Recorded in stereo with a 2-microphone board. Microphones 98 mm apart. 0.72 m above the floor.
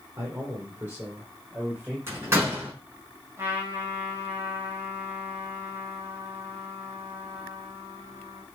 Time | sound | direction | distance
0.2 | a man speaking | 35° right (ahead or behind) | 2.5 m
2.1 | a door slam | 25° right (ahead or behind) | 5.5 m
3.4 | a trumpet | 30° right (ahead or behind) | 3.5 m